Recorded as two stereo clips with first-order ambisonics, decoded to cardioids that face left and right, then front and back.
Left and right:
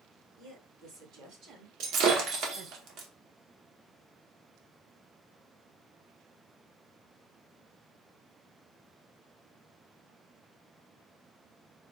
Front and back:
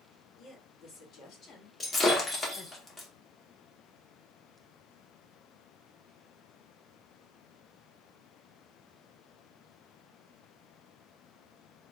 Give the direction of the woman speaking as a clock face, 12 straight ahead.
2 o'clock.